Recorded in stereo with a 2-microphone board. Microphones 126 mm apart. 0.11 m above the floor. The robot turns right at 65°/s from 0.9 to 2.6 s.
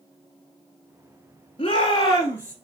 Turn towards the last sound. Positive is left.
turn(degrees=175)